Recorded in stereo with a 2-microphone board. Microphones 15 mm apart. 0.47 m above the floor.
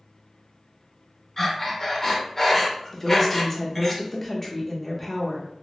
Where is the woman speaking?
20° left (ahead or behind), 0.7 m.